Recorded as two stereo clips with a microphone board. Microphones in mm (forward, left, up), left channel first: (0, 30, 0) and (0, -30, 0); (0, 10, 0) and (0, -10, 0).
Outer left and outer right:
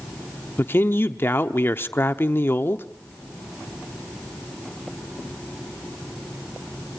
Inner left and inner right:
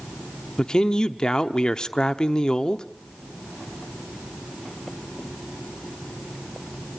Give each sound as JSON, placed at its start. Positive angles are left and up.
{"t": 0.6, "sound": "a man speaking", "side_deg": 35, "distance_m": 0.9}